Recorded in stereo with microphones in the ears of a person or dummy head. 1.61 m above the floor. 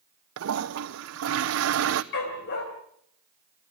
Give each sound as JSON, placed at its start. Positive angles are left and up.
{"t": 0.4, "sound": "a toilet flushing", "side_deg": -75, "distance_m": 0.9}
{"t": 2.1, "sound": "a dog barking", "side_deg": 65, "distance_m": 3.0}